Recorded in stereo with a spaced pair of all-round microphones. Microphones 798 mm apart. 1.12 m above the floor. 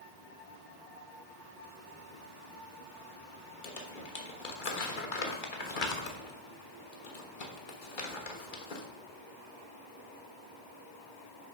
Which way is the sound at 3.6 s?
85° left.